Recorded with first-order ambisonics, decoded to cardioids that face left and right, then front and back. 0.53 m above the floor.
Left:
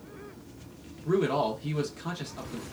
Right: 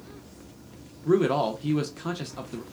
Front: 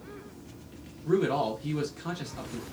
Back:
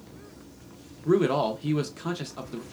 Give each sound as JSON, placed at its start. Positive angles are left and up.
{"t": 1.1, "sound": "a man speaking", "azimuth_deg": -145, "distance_m": 0.6}